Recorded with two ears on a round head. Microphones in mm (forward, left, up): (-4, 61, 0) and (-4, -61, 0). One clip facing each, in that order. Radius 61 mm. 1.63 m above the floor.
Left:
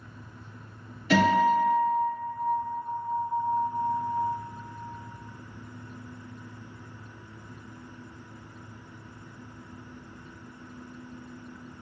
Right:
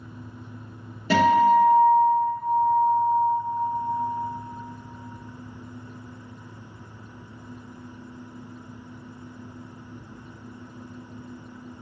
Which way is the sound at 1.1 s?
35° right (ahead or behind).